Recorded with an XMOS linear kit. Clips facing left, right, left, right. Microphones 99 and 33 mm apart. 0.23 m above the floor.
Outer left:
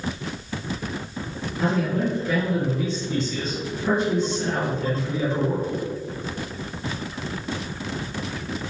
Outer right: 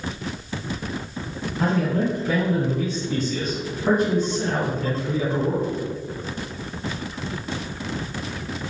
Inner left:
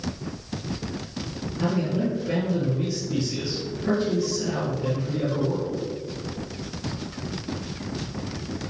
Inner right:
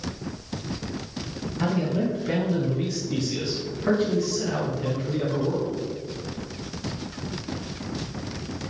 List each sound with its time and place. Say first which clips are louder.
1.6 s a man speaking: outer right 1 dB, even; 50° right (ahead or behind), 1.5 m